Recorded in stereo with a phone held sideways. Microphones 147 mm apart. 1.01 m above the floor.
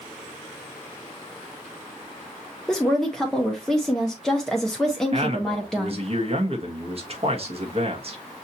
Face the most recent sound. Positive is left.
turn(degrees=-45)  # may be behind; listen again after turning